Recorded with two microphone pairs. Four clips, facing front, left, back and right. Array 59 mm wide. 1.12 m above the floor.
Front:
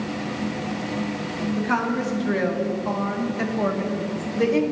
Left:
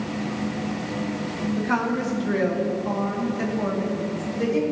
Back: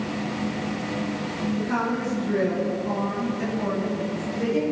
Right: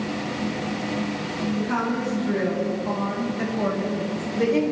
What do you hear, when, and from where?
1.6 s a woman speaking: 35° left, 3 m; by 4.7 s 30° right, 3 m